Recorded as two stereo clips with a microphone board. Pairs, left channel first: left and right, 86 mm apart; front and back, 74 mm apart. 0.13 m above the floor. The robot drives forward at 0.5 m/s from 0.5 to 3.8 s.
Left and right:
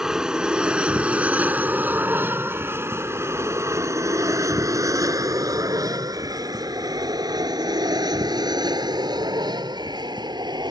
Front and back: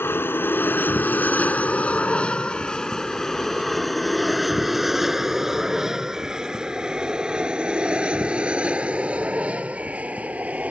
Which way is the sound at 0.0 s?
10° right.